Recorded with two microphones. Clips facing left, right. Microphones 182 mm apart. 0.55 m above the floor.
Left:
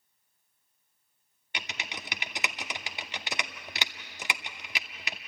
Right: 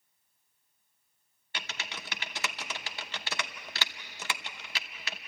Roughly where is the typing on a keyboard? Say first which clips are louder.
Left 1 dB; centre.